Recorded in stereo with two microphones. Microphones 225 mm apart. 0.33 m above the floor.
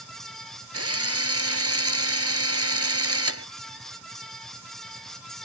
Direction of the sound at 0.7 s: 75° right (ahead or behind).